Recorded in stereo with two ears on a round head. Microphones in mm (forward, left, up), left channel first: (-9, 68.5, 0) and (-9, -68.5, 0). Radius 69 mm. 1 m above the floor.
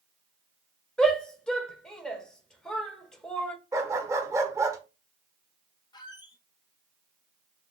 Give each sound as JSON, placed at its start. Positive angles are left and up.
{"t": 1.0, "sound": "a shout", "side_deg": 5, "distance_m": 1.2}
{"t": 3.7, "sound": "a dog barking", "side_deg": -20, "distance_m": 0.8}
{"t": 5.9, "sound": "a squeak", "side_deg": 30, "distance_m": 0.8}